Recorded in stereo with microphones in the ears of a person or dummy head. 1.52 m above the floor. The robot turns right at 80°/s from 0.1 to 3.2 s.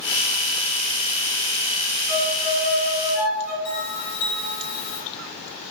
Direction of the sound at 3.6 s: 75° left (ahead or behind).